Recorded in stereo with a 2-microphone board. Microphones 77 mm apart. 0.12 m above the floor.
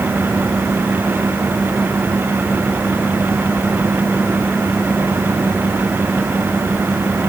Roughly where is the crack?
I don't hear a crack.